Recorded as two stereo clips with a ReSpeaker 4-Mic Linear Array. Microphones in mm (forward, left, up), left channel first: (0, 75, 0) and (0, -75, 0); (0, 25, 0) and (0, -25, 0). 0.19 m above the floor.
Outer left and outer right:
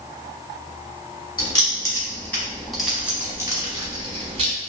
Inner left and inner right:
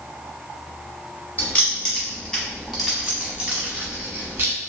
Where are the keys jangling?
30° left (ahead or behind), 1.3 m; by 4.5 s 45° right (ahead or behind), 1.3 m.